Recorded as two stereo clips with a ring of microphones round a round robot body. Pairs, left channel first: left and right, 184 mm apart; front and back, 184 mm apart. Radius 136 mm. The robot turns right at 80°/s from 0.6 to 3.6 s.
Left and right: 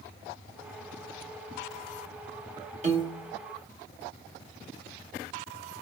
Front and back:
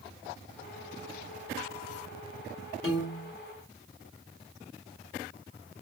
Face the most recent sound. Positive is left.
turn(degrees=20)